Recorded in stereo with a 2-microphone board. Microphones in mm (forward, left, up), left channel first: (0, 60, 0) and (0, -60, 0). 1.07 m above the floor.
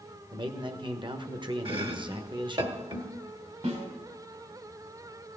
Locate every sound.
0.3 s a man speaking: 40° right (ahead or behind), 1.2 m
1.6 s chopping: 45° right (ahead or behind), 1.4 m
3.6 s a snare drum: 70° right (ahead or behind), 4 m